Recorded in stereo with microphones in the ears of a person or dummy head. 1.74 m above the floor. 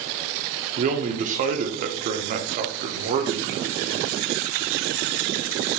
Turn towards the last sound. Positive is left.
turn(degrees=-45)  # may be behind; listen again after turning